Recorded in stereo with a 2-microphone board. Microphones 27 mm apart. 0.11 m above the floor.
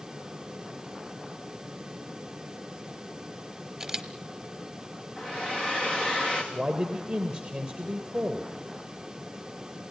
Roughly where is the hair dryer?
Centre.